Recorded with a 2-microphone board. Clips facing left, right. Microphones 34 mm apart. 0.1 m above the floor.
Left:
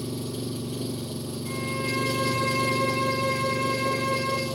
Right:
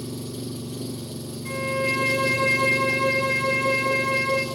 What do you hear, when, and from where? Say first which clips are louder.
0.0 s an engine running: left 1 dB; 20° left (ahead or behind), 0.8 m
1.4 s a violin: right 6 dB; 50° right (ahead or behind), 1.0 m